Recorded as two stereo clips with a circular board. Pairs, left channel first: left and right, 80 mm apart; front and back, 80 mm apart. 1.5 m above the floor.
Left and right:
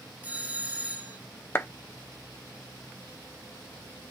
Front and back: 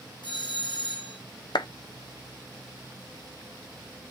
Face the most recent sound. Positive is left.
turn(degrees=25)